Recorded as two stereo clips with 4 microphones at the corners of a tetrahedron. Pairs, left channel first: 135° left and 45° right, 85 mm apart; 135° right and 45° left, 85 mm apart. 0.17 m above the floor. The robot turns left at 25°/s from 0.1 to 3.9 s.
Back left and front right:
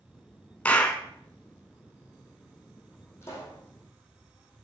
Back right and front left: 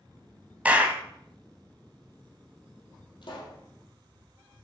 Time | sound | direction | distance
0.7 | a clap | 90° left | 0.8 m
3.2 | a pop | 165° right | 2.5 m